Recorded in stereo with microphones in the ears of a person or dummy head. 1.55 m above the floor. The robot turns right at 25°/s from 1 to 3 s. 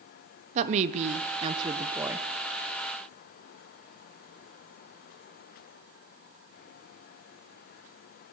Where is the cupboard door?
No cupboard door in this recording.